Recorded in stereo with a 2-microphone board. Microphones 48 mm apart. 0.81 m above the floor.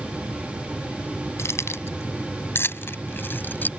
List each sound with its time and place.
1.4 s keys jangling: 65° left (ahead or behind); by 3.7 s 40° left (ahead or behind)